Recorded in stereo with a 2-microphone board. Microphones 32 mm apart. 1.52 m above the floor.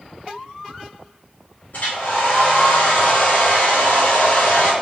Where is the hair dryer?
60° left (ahead or behind), 1.9 m.